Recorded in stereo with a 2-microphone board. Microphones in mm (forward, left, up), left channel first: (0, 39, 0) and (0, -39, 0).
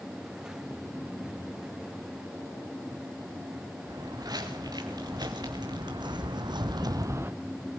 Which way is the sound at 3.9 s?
55° right (ahead or behind).